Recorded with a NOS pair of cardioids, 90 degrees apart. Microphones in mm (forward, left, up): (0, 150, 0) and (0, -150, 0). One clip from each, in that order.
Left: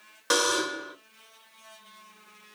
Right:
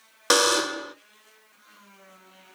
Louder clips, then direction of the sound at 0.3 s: Right 4 dB; 35° right.